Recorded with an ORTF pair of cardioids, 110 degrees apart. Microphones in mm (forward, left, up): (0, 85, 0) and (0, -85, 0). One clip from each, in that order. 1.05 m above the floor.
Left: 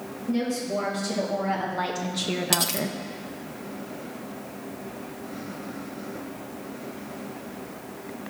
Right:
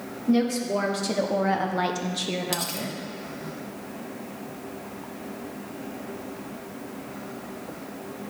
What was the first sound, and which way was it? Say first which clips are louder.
A woman speaking: right 4 dB; 50° right.